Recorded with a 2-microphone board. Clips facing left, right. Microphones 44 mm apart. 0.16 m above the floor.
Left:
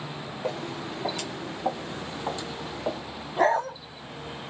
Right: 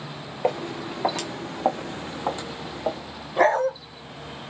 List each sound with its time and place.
0.4 s footsteps: 60° right (ahead or behind), 0.9 m; by 3.0 s 10° right (ahead or behind), 0.9 m
3.4 s a dog barking: 60° right (ahead or behind), 1.2 m